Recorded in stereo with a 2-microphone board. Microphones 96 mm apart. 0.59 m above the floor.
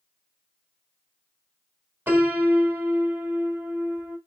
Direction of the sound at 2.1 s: 25° right (ahead or behind).